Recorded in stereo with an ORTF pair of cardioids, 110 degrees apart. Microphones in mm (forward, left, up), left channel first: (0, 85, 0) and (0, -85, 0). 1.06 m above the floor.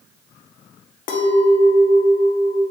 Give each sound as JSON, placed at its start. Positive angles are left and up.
{"t": 1.1, "sound": "a clink", "azimuth_deg": 55, "distance_m": 0.6}